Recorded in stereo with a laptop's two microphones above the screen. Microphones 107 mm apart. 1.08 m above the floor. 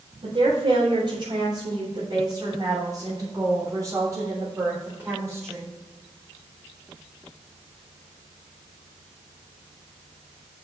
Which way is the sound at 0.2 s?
55° right (ahead or behind).